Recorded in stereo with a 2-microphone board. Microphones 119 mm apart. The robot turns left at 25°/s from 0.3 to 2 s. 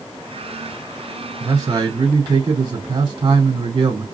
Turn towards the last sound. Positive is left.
turn(degrees=-45)  # may be behind; listen again after turning